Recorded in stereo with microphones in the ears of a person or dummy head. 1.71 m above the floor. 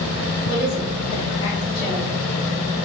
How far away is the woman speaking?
About 1.8 m.